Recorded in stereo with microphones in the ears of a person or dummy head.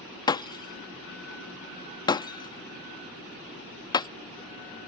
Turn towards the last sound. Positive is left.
turn(degrees=25)  # may be behind; listen again after turning